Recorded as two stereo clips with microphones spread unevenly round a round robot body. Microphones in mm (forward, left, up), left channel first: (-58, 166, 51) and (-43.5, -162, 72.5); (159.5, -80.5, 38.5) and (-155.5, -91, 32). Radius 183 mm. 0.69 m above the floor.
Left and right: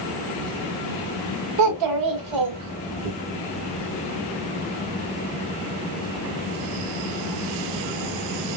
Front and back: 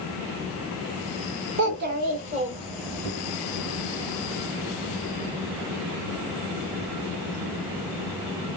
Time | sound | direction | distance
1.6 | a child speaking | 125° right | 1.7 m